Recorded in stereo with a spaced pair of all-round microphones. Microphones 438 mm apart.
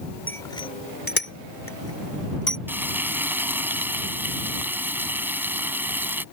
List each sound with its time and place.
0.3 s a bicycle bell: 5° left (ahead or behind); by 2.6 s 55° left (ahead or behind)
2.7 s frying: 5° right (ahead or behind)